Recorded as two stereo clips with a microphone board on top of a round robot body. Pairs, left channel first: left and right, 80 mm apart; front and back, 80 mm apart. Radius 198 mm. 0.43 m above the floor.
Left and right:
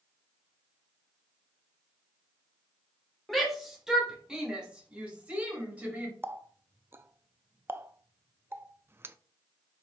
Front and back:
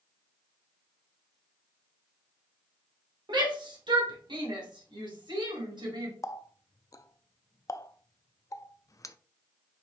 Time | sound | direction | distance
3.3 | a shout | straight behind | 2.5 m
6.2 | a running tap | 35° right | 0.7 m